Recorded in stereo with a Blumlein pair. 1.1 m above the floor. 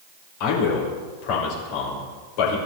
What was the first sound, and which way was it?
A man speaking, 45° left.